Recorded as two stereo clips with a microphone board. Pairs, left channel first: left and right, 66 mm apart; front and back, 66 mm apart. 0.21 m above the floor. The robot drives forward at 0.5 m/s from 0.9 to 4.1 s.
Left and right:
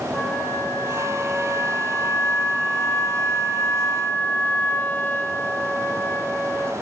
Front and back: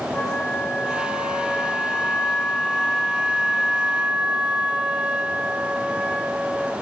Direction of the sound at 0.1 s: 35° left.